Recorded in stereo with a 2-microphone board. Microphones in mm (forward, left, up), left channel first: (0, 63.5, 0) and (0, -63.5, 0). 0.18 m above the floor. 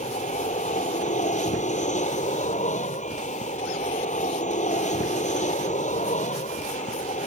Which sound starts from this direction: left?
An aircraft, at 0.0 s.